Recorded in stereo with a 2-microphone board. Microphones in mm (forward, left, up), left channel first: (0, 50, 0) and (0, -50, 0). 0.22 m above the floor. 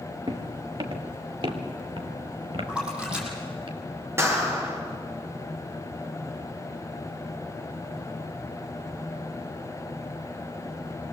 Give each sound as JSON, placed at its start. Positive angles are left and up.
{"t": 0.3, "sound": "footsteps", "side_deg": -50, "distance_m": 3.0}
{"t": 2.7, "sound": "a splash", "side_deg": -10, "distance_m": 7.5}
{"t": 4.2, "sound": "a clap", "side_deg": -25, "distance_m": 3.5}